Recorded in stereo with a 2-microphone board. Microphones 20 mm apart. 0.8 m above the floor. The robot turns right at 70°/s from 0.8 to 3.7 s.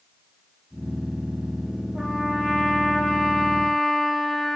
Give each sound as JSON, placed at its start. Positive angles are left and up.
{"t": 1.9, "sound": "a trumpet", "azimuth_deg": -125, "distance_m": 8.5}